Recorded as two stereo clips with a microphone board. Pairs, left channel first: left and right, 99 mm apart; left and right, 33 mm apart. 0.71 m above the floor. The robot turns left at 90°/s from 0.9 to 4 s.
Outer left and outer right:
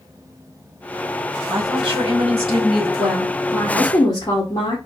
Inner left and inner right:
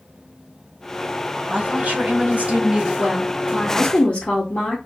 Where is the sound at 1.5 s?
25° right, 1.5 m; by 2.9 s 150° right, 1.5 m.